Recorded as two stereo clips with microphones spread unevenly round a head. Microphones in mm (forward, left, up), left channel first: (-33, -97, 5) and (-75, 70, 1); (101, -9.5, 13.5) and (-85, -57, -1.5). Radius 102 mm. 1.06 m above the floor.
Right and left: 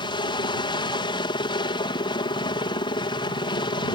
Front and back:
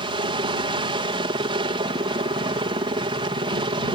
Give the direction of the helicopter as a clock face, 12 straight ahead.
4 o'clock.